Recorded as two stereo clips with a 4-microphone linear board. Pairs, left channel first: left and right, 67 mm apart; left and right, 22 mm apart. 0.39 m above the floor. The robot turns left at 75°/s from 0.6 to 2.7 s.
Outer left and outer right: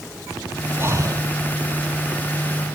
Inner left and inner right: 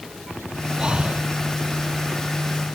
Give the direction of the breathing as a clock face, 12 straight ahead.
1 o'clock.